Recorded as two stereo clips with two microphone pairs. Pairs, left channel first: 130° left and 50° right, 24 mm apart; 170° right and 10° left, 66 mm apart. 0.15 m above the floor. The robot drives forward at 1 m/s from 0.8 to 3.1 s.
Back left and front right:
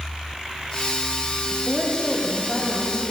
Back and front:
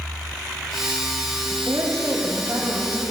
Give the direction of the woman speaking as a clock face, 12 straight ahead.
10 o'clock.